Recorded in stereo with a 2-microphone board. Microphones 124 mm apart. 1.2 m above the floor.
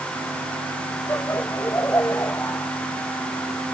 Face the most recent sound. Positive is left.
turn(degrees=20)  # may be behind; listen again after turning